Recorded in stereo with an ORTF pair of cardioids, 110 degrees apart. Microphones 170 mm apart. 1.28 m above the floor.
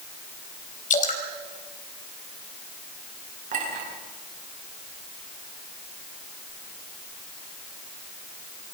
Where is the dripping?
50° left, 3.5 m.